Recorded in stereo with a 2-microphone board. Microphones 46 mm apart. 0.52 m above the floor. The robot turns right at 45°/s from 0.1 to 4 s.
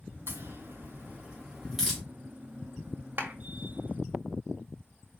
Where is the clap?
40° right (ahead or behind), 1.4 m; by 3.3 s 35° right (ahead or behind), 1.4 m.